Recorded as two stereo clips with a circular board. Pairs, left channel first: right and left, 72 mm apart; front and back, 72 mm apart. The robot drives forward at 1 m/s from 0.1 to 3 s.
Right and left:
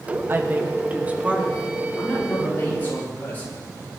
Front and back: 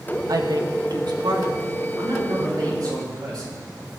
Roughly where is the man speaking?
Behind right.